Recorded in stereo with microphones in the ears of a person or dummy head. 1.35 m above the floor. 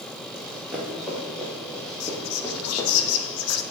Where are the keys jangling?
No keys jangling in this recording.